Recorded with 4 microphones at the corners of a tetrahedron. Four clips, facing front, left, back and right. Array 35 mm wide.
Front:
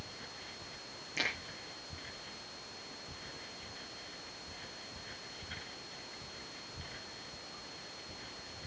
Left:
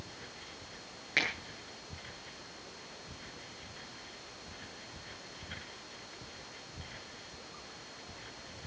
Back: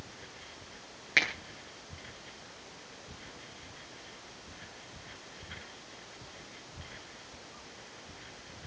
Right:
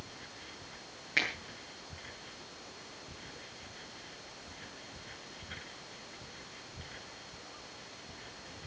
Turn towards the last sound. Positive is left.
turn(degrees=175)